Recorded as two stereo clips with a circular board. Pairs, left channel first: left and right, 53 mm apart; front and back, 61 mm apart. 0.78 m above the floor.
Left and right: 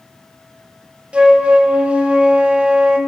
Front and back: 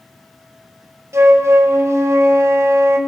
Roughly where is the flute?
Behind right.